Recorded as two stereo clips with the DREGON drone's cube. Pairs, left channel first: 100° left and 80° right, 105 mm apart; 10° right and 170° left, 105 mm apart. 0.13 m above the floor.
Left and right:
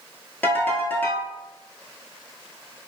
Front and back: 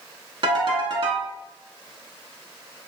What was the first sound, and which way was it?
A ringtone, 165° left.